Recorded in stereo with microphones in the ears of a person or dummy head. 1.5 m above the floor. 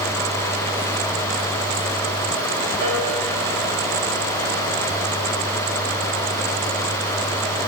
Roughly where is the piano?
Right.